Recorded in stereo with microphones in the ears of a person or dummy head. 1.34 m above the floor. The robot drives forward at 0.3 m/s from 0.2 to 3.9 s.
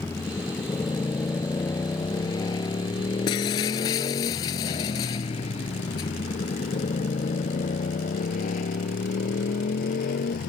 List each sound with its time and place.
0.0 s a motorcycle: 10° left (ahead or behind); by 10.5 s 50° left (ahead or behind)
3.3 s breaking glass: 25° left (ahead or behind)